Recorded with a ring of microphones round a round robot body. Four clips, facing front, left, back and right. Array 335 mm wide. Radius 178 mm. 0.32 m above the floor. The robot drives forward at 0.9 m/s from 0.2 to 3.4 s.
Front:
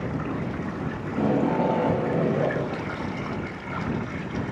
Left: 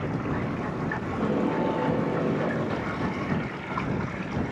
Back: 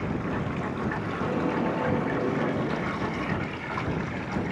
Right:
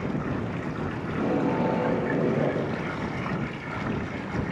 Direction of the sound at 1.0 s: 10° right.